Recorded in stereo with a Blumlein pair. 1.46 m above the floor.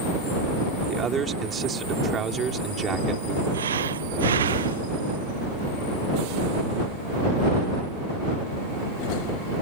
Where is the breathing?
65° right.